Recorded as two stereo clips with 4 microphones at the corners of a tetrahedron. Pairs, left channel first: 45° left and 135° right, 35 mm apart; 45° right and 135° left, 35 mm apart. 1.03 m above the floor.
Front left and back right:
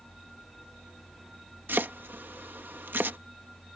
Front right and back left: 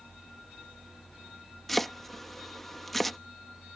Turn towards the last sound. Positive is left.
turn(degrees=-130)